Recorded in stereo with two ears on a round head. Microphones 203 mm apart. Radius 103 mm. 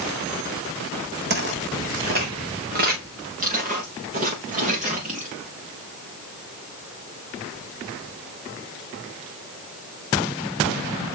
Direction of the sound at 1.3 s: 50° right (ahead or behind).